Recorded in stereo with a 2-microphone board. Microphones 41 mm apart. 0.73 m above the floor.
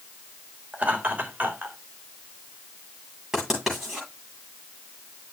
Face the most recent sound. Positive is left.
turn(degrees=-10)  # may be behind; listen again after turning